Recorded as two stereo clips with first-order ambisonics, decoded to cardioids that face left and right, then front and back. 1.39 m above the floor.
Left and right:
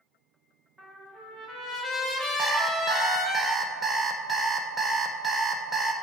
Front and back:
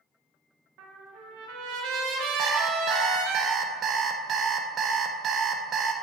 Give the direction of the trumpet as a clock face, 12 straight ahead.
6 o'clock.